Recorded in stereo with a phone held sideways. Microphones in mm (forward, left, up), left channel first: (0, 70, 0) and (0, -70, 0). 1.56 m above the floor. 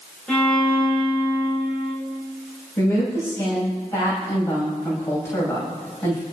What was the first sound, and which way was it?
A violin, 10° left (ahead or behind).